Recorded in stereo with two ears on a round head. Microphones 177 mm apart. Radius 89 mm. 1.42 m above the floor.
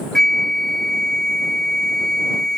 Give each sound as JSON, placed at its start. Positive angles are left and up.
{"t": 0.1, "sound": "a flute", "side_deg": 5}